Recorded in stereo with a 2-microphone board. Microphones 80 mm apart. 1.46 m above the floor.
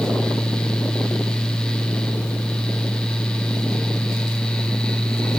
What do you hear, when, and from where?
Only background noise.